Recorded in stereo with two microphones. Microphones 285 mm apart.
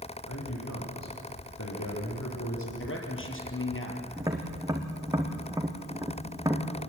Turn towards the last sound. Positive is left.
turn(degrees=-10)  # may be behind; listen again after turning